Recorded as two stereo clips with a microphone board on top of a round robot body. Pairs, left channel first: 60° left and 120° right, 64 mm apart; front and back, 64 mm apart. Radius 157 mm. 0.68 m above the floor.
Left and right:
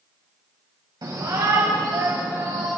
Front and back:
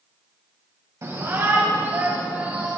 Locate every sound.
1.0 s a shout: 140° right, 4 m; by 2.7 s 115° right, 5.5 m